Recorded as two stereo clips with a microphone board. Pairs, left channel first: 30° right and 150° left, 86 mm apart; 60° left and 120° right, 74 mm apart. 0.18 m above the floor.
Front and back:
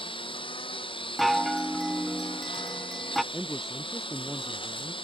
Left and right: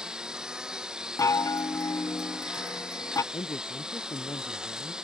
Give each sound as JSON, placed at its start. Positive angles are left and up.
{"t": 0.0, "sound": "a lawn mower", "azimuth_deg": -40}
{"t": 1.2, "sound": "a chime", "azimuth_deg": 60}
{"t": 3.3, "sound": "a man speaking", "azimuth_deg": 60}